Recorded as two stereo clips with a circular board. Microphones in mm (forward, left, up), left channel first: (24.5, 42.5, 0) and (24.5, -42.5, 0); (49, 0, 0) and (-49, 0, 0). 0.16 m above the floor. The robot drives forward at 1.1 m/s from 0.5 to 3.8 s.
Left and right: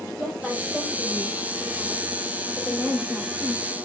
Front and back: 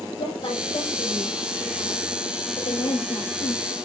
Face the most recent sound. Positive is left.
turn(degrees=10)